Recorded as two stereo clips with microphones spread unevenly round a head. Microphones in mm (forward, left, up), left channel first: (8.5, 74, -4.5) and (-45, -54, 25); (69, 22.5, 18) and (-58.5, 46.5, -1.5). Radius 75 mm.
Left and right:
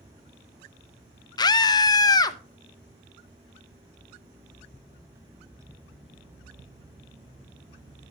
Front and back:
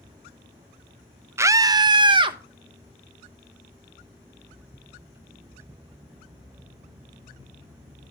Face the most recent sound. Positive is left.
turn(degrees=125)